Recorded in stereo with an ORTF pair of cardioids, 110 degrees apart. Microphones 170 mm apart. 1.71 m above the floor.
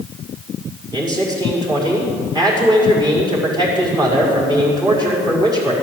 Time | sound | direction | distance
0.9 | a man speaking | 25° right | 5.5 m